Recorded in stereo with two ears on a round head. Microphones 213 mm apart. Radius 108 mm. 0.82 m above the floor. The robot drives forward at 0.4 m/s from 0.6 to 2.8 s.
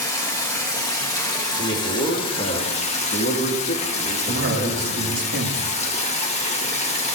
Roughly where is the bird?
No bird in this recording.